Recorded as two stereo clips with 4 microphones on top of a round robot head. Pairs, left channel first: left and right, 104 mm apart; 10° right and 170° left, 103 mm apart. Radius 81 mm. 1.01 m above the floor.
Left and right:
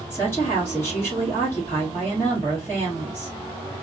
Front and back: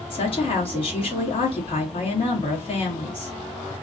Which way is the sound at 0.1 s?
15° left.